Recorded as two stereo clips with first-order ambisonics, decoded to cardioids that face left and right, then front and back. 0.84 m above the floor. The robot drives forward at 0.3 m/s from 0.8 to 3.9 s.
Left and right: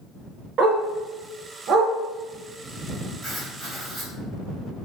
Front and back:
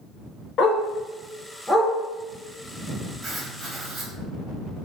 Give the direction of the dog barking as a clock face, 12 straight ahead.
1 o'clock.